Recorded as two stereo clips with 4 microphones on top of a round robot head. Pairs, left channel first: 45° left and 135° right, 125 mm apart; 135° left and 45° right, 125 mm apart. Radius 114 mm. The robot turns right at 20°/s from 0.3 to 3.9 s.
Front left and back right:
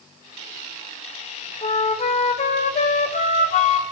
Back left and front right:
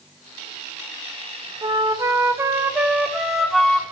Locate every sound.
1.6 s a flute: 10° left, 0.8 m; by 3.8 s 55° left, 0.8 m